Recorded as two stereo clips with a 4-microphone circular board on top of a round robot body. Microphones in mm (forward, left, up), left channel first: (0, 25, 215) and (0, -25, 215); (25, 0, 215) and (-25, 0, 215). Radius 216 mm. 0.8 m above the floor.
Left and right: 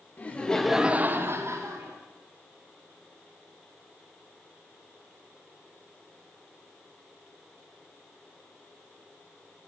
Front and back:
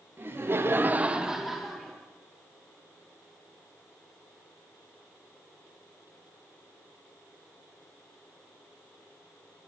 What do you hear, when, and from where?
0.2 s laughter: 145° left, 0.9 m; by 2.0 s 85° right, 1.2 m